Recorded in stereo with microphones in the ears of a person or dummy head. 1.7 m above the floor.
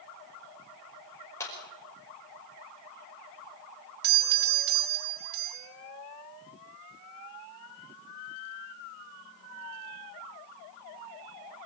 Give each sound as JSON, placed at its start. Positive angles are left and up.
{"t": 1.4, "sound": "a clap", "side_deg": 20, "distance_m": 5.5}
{"t": 4.0, "sound": "a doorbell", "side_deg": -50, "distance_m": 1.9}